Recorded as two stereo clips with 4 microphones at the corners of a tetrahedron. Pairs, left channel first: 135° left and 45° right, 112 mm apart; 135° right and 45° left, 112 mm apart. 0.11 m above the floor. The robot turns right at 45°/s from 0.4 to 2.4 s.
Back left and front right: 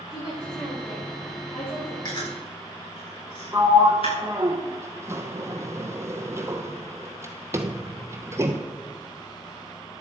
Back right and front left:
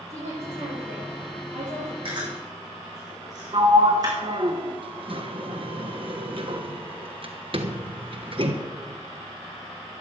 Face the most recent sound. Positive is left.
turn(degrees=15)